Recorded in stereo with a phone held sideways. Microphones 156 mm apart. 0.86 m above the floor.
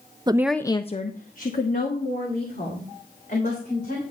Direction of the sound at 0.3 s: 30° right (ahead or behind).